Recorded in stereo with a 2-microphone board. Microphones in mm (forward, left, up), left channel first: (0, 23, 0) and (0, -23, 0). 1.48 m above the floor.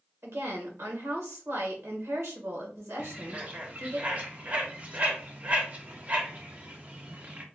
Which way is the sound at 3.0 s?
35° right (ahead or behind).